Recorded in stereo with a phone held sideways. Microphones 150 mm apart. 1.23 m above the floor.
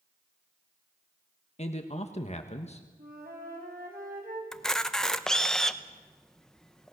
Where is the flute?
85° right, 5.5 m.